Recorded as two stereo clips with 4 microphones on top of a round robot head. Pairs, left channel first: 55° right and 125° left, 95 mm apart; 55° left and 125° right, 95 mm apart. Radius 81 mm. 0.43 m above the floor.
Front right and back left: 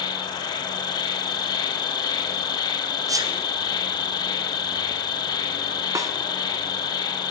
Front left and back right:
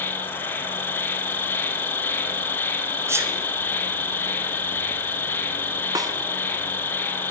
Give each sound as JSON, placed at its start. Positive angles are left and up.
{"t": 0.0, "sound": "an insect", "azimuth_deg": -10, "distance_m": 1.3}
{"t": 3.1, "sound": "a sneeze", "azimuth_deg": 175, "distance_m": 1.9}
{"t": 6.0, "sound": "a snare drum", "azimuth_deg": -175, "distance_m": 1.3}